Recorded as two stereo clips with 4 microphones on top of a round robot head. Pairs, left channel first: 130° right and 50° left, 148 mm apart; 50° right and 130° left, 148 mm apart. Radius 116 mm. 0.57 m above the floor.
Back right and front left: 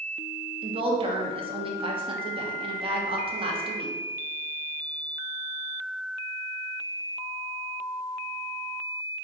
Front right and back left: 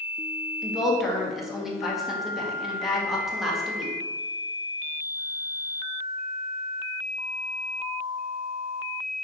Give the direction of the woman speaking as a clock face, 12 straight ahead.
11 o'clock.